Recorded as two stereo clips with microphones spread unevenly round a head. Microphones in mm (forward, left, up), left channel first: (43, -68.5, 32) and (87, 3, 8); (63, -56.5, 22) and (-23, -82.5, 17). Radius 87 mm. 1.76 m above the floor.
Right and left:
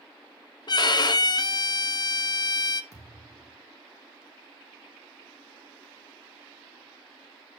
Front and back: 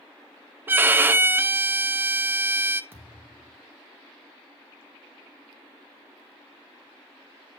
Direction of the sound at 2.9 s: 100° right.